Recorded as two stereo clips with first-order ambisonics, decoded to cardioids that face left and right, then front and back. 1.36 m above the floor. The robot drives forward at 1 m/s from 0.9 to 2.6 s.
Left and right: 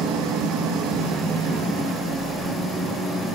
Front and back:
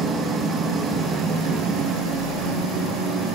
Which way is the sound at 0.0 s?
115° right.